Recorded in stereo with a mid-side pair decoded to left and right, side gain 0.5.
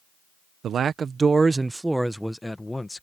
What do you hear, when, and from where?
0.6 s a man speaking: 55° right; by 3.0 s 15° left